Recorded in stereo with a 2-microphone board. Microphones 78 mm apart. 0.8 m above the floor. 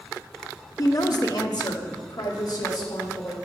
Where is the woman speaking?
45° left (ahead or behind), 0.7 m; by 3.4 s 55° left (ahead or behind), 2.5 m.